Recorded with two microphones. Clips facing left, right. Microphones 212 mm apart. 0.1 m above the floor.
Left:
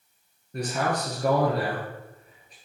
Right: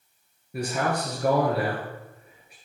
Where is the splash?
I don't hear a splash.